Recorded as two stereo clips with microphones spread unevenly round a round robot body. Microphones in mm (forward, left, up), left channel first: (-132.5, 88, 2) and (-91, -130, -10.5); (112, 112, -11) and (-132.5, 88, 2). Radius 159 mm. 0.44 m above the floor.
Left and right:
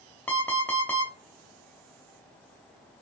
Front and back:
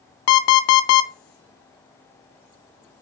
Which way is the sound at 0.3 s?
15° left.